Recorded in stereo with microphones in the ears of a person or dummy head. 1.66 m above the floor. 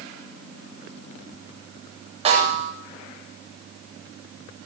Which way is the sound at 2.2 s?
35° right (ahead or behind).